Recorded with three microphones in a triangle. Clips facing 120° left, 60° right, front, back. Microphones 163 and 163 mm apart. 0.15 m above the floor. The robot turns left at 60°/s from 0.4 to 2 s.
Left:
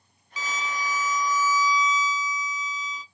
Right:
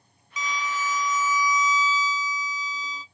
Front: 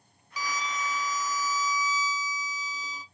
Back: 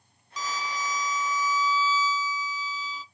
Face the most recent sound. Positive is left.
turn(degrees=-20)